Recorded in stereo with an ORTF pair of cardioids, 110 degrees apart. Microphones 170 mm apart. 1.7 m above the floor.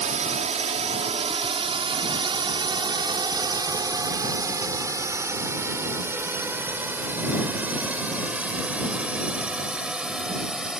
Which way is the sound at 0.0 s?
45° right.